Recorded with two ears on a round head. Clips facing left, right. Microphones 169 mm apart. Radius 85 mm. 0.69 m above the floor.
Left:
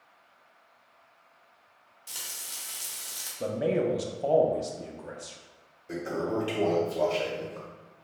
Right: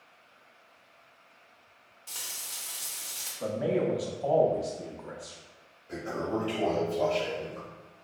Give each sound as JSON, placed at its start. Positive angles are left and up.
{"t": 2.1, "sound": "frying", "side_deg": 10, "distance_m": 0.9}
{"t": 3.4, "sound": "a man speaking", "side_deg": 30, "distance_m": 0.5}
{"t": 5.9, "sound": "a toilet flushing", "side_deg": 60, "distance_m": 1.3}